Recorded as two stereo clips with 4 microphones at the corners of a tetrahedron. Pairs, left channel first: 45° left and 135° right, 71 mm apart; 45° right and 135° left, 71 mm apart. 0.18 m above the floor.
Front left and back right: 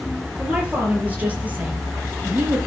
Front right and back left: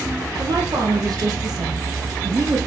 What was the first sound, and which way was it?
A woman speaking, 150° left.